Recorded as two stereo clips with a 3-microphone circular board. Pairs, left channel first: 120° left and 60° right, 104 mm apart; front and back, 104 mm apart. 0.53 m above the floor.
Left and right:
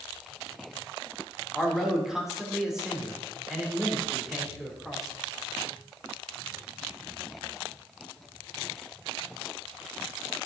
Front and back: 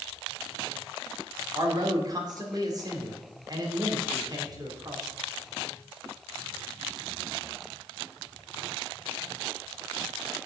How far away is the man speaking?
About 1.8 m.